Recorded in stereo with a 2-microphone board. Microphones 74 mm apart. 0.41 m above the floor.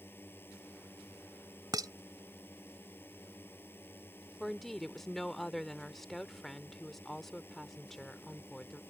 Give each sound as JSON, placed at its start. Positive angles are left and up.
{"t": 0.0, "sound": "a drone", "side_deg": 30}
{"t": 1.7, "sound": "dishes clattering", "side_deg": -60}
{"t": 4.4, "sound": "a woman speaking", "side_deg": 5}